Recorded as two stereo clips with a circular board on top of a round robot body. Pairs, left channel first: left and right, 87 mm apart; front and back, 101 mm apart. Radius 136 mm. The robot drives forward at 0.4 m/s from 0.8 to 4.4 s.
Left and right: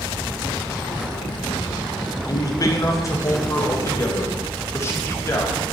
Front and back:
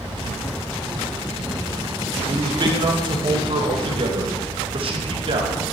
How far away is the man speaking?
About 1.8 m.